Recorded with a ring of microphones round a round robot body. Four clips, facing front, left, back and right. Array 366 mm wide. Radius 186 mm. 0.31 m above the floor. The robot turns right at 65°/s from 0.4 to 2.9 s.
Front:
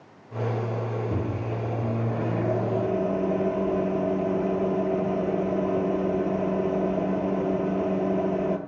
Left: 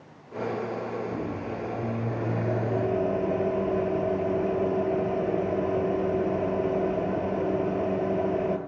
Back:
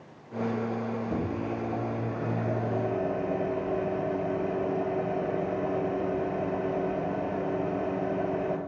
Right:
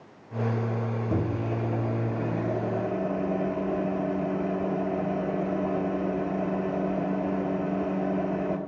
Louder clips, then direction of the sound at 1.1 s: Right 3 dB, front 1 dB; 75° right.